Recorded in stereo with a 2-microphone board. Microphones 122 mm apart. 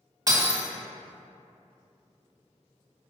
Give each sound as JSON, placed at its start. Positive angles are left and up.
{"t": 0.3, "sound": "breaking glass", "side_deg": -35, "distance_m": 1.5}